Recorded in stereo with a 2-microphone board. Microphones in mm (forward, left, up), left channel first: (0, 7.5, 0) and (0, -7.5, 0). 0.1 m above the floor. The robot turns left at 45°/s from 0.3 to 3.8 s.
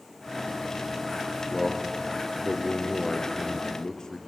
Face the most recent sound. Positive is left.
turn(degrees=60)